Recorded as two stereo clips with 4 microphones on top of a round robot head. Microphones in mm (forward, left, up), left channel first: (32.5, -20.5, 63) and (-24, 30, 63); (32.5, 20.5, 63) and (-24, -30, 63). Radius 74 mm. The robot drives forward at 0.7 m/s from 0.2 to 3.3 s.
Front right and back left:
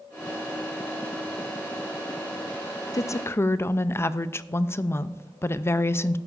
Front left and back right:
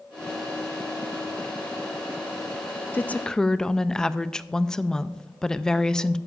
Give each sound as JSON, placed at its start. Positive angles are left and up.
{"t": 2.9, "sound": "a woman speaking", "azimuth_deg": -15, "distance_m": 0.6}